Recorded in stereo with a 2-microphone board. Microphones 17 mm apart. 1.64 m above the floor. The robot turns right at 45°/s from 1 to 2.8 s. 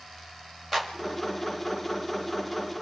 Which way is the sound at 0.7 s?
10° left (ahead or behind).